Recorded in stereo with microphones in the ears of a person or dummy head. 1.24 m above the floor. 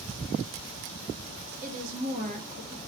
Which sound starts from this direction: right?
A woman speaking, at 1.6 s.